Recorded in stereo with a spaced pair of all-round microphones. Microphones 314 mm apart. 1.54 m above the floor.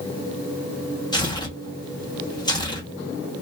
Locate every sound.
1.1 s tearing paper: 15° left (ahead or behind), 0.9 m